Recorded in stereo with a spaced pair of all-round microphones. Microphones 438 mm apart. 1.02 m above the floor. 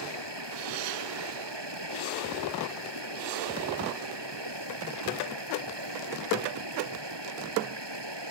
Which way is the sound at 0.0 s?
70° right (ahead or behind).